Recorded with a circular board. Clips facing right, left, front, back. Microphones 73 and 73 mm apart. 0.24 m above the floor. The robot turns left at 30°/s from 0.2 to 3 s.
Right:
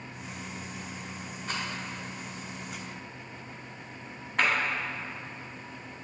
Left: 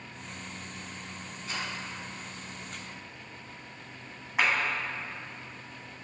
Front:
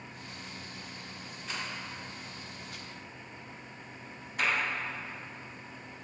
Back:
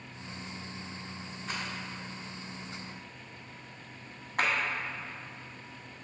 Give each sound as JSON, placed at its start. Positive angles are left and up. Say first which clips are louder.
{"t": 1.5, "sound": "a rattle", "louder": "right 2 dB, back 1 dB", "azimuth_deg": -135, "distance_m": 1.9}
{"t": 4.4, "sound": "a clap", "louder": "even, back 1 dB", "azimuth_deg": 165, "distance_m": 1.7}